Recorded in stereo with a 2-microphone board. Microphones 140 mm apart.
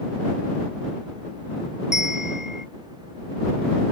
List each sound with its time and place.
1.9 s a bell: 5° right (ahead or behind)